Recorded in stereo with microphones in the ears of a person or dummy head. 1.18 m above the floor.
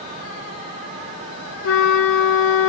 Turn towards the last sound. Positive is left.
turn(degrees=80)